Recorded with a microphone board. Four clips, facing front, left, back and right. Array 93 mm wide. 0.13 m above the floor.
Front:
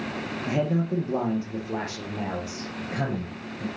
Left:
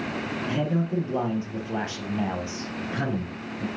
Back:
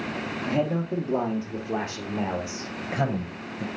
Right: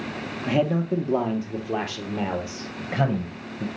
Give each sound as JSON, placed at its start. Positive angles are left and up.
{"t": 0.5, "sound": "a man speaking", "azimuth_deg": -80, "distance_m": 3.5}